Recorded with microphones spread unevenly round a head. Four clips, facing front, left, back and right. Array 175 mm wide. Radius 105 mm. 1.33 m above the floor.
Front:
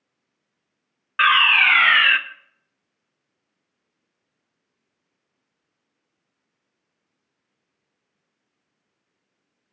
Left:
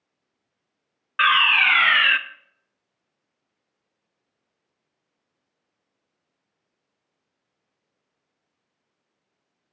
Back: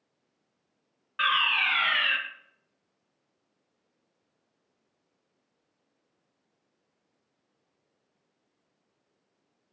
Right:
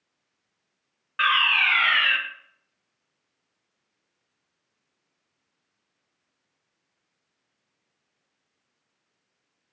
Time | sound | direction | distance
1.2 | a fire alarm | 30° left | 1.0 m